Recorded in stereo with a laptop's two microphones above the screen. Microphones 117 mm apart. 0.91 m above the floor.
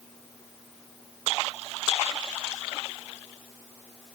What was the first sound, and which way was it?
Only background noise.